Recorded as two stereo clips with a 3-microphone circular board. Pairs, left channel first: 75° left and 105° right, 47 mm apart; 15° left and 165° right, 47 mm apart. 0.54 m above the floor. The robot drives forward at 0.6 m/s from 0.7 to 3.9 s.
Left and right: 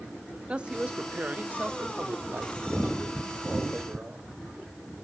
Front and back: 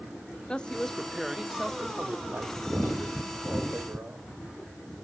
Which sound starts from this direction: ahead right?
A woman speaking, at 0.5 s.